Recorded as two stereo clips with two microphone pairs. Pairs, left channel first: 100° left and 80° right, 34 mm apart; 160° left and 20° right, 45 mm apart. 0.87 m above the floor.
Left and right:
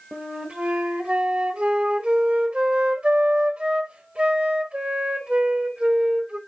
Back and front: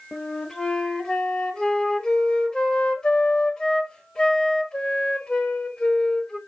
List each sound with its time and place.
0.1 s a flute: 125° right, 1.3 m